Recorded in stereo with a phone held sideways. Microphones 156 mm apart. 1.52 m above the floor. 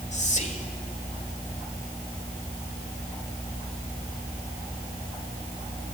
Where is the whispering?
50° left (ahead or behind), 2.5 m.